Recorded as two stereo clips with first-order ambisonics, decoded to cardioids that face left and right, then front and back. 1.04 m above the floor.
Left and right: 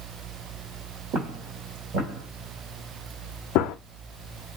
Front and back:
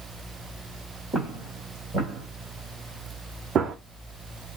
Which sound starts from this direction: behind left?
A gunshot, at 3.5 s.